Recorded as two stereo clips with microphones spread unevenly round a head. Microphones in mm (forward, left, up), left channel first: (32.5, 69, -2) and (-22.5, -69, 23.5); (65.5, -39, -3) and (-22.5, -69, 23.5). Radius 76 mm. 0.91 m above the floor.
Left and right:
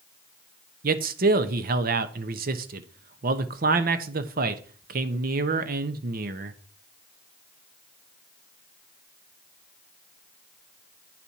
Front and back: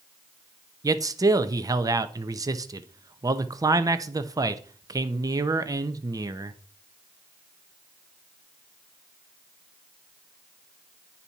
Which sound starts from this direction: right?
A man speaking, at 0.8 s.